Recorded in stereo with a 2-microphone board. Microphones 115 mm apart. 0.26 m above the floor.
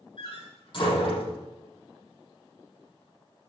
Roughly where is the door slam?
Left.